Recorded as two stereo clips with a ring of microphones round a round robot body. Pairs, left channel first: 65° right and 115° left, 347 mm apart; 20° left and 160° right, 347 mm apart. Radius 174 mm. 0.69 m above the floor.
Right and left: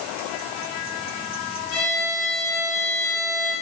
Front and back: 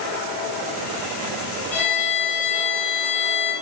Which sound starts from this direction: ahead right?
A violin, at 1.7 s.